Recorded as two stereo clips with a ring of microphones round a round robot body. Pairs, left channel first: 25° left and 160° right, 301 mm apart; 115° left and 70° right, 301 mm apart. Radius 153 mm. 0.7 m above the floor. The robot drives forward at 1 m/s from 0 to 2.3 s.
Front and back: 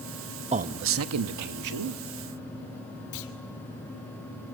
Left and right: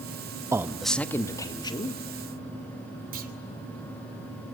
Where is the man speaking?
130° right, 0.8 m; by 2.0 s 175° right, 1.8 m.